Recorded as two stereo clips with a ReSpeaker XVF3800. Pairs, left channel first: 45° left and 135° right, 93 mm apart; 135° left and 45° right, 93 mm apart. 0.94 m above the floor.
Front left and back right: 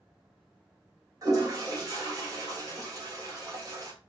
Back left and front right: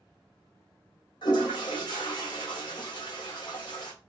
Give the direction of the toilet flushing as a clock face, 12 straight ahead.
6 o'clock.